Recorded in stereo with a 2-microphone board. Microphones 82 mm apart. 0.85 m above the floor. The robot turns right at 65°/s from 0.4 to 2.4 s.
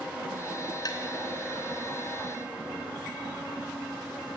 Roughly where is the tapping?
Left.